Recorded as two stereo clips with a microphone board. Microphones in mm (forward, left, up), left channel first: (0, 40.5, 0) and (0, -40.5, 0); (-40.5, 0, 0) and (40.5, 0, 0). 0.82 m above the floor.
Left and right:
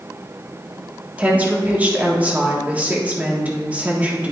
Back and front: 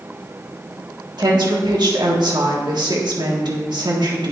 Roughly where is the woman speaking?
Ahead.